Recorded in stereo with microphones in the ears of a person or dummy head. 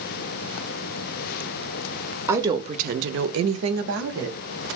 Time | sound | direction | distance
2.3 | a woman speaking | 10° right (ahead or behind) | 0.6 m